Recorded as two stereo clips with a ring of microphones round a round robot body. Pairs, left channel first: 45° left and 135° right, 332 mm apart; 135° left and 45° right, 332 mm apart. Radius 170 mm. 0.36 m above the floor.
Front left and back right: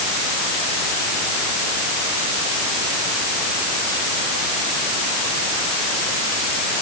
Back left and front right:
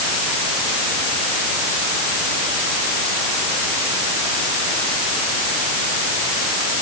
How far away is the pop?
I don't hear a pop.